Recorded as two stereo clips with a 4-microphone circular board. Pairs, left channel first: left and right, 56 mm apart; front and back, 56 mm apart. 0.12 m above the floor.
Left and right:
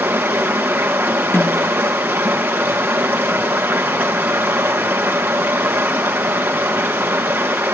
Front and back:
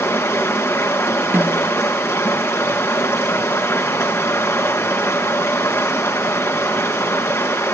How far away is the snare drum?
About 3.5 m.